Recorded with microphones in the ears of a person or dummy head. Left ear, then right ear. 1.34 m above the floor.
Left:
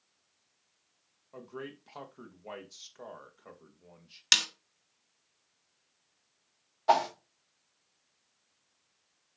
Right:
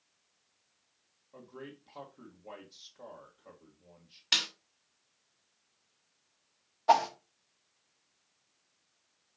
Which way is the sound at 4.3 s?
60° left (ahead or behind).